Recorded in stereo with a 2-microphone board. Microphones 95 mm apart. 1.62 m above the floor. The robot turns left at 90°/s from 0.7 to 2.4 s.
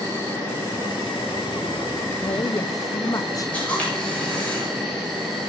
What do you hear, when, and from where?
0.0 s an insect: 150° left, 8.5 m; by 5.5 s straight ahead, 8.5 m
2.2 s a woman speaking: 55° left (ahead or behind), 0.8 m; by 3.6 s 35° left (ahead or behind), 0.8 m
3.5 s a camera shutter: 15° left (ahead or behind), 7.5 m